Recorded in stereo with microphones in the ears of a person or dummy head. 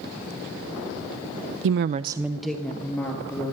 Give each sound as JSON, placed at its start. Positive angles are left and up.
{"t": 1.6, "sound": "a woman speaking", "side_deg": -70, "distance_m": 0.5}